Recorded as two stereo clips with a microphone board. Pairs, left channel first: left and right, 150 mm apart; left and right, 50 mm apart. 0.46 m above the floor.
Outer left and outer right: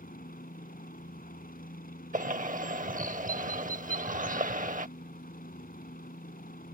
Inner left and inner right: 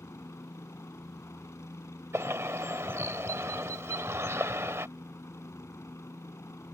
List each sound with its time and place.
0.0 s a helicopter: 70° left (ahead or behind)
2.1 s a bird: 60° right (ahead or behind)